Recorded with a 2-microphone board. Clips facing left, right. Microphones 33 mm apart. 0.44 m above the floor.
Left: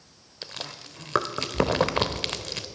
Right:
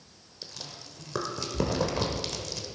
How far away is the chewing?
About 0.7 m.